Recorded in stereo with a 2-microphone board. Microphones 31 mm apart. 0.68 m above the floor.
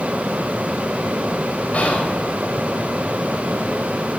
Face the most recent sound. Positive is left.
turn(degrees=55)  # may be behind; listen again after turning